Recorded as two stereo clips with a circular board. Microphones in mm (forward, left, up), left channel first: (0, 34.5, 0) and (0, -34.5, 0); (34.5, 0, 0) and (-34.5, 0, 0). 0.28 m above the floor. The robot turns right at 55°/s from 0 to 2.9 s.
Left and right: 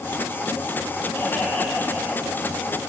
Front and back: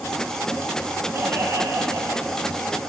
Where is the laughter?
135° left, 2.5 m; by 2.5 s 150° right, 2.5 m.